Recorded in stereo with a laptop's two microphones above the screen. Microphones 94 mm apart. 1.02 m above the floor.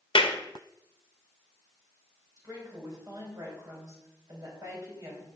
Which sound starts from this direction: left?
A clap, at 0.1 s.